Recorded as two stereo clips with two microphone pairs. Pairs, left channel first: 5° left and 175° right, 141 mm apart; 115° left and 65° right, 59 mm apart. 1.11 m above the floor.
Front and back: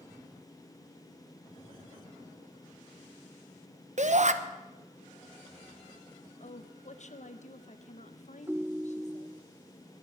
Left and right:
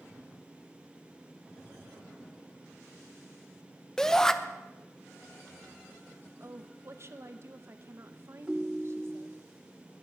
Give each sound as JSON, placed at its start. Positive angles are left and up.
{"t": 4.0, "sound": "a shout", "azimuth_deg": -170, "distance_m": 0.9}
{"t": 6.4, "sound": "a woman speaking", "azimuth_deg": -25, "distance_m": 0.9}
{"t": 8.5, "sound": "a ringtone", "azimuth_deg": -115, "distance_m": 0.5}